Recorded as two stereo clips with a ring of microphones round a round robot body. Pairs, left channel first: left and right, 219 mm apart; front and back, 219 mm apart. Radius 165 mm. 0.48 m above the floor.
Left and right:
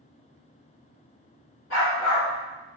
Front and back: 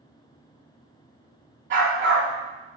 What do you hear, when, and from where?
1.7 s a dog barking: 140° left, 1.0 m